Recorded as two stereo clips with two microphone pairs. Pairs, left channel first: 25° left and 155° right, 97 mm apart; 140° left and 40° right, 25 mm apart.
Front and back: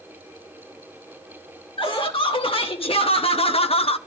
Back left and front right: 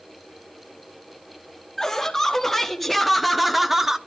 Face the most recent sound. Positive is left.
turn(degrees=25)